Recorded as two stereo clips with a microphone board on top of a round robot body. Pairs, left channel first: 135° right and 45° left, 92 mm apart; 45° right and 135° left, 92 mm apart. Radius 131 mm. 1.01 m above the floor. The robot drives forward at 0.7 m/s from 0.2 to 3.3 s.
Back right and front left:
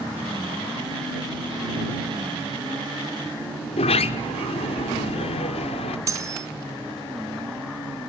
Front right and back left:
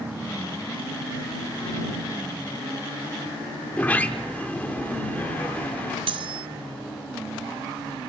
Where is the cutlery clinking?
100° left, 1.3 m.